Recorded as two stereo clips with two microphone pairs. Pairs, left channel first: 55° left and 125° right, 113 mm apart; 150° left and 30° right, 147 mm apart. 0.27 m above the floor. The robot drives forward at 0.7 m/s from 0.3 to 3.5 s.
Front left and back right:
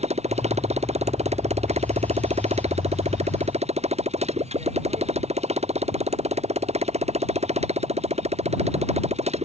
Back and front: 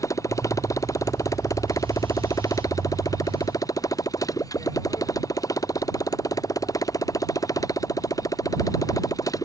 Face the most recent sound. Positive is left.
turn(degrees=-145)